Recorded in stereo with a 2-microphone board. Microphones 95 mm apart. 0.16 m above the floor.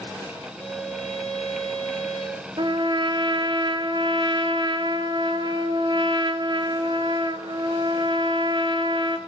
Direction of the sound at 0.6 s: 5° left (ahead or behind).